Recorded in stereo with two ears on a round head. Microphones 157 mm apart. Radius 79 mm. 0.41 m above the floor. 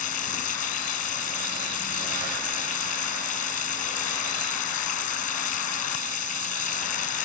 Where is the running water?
45° left (ahead or behind).